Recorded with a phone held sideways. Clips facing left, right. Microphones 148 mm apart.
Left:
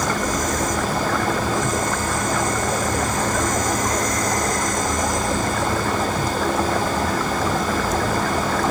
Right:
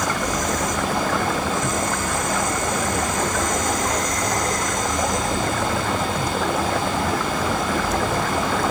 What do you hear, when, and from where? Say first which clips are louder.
0.0 s a machine running: left 1 dB; 40° left (ahead or behind), 1.3 m